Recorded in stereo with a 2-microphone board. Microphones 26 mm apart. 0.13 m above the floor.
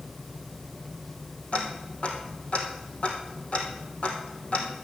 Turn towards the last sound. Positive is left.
turn(degrees=50)  # may be behind; listen again after turning